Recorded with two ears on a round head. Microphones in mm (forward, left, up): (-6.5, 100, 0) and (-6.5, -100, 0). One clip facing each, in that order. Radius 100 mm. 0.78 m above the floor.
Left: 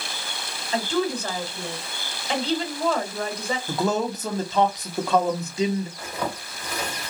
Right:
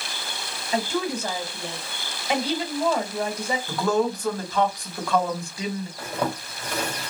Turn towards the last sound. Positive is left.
turn(degrees=-20)  # may be behind; listen again after turning